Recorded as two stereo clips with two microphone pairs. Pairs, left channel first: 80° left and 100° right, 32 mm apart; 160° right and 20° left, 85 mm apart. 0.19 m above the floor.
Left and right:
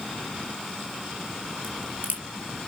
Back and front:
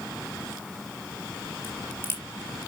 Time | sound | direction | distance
1.6 | a crack | 100° right | 3.5 m